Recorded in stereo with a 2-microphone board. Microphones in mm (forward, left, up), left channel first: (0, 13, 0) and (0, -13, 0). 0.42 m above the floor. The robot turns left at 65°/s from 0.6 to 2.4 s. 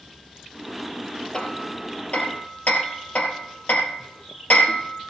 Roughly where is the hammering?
Left.